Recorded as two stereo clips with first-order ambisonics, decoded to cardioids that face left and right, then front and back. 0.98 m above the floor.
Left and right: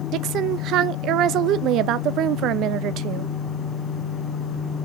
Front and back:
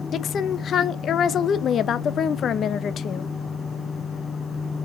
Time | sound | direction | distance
0.1 | a woman speaking | 55° right | 0.5 m